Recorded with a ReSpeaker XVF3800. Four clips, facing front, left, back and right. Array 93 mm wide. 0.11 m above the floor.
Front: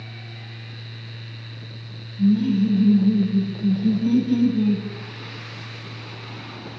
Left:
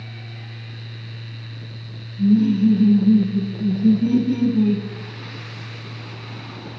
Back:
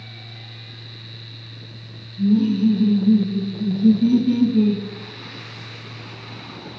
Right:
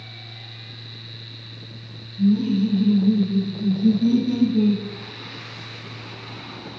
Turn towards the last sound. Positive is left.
turn(degrees=-145)